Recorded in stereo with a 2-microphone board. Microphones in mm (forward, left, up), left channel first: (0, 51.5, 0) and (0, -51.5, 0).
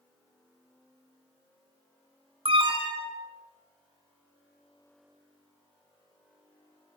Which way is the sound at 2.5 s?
65° right (ahead or behind).